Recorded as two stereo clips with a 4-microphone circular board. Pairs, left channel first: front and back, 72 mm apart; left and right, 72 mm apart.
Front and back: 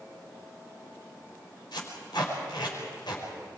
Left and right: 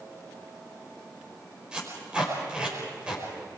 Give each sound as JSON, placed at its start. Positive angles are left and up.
{"t": 1.7, "sound": "tape being pulled", "azimuth_deg": -15, "distance_m": 5.5}